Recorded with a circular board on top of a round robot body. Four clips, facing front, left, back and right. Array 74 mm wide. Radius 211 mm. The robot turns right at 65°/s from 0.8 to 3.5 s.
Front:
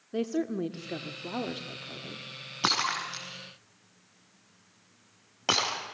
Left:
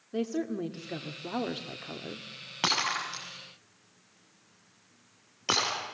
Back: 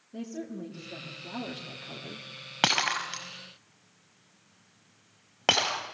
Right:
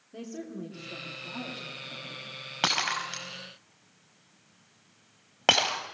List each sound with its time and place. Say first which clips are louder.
0.1 s a woman speaking: left 8 dB, front 8 dB; 30° left, 1.7 m; by 2.3 s 125° left, 1.7 m
2.6 s breaking glass: right 1 dB, back 1 dB; 175° right, 5.5 m; by 5.8 s 120° right, 5.5 m